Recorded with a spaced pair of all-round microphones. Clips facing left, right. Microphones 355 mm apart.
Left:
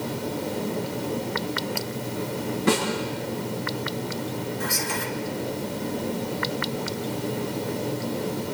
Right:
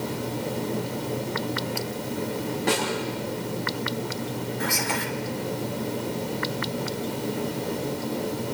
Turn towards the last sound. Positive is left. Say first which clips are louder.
# right 1 dB
turn(degrees=-75)  # may be behind; listen again after turning